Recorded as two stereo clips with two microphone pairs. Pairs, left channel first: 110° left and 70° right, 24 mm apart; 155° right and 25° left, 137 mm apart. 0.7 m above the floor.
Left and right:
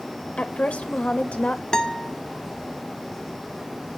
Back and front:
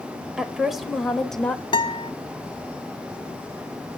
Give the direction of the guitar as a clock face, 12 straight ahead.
7 o'clock.